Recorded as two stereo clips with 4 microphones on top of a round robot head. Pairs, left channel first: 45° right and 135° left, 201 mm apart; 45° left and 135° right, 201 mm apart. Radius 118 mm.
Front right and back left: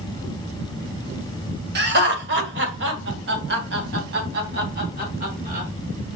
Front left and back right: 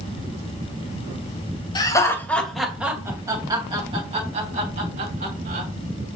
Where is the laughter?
110° left, 2.5 m; by 5.7 s straight behind, 5 m.